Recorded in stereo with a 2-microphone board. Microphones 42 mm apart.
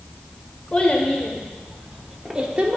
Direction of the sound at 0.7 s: 25° left (ahead or behind).